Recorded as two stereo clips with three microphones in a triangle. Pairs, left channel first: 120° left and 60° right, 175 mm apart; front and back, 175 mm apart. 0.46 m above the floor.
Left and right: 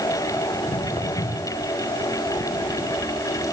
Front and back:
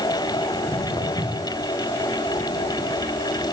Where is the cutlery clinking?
No cutlery clinking in this recording.